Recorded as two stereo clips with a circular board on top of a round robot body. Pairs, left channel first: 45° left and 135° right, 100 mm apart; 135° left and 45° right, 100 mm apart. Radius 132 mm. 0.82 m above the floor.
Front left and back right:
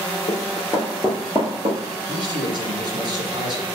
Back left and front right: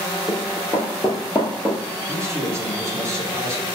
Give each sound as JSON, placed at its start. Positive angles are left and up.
{"t": 0.3, "sound": "running footsteps", "azimuth_deg": 30, "distance_m": 0.9}
{"t": 2.1, "sound": "a man speaking", "azimuth_deg": -100, "distance_m": 1.8}